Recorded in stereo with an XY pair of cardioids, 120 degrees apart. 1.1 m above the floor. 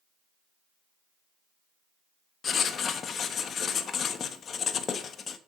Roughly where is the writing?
Ahead left.